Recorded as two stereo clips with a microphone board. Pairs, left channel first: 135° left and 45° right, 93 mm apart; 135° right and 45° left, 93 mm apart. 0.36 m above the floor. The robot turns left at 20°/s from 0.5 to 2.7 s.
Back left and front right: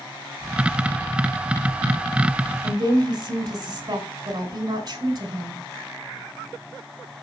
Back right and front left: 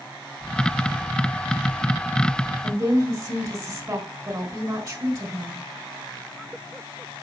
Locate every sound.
2.6 s a woman speaking: straight ahead, 3 m; by 5.6 s 5° right, 3 m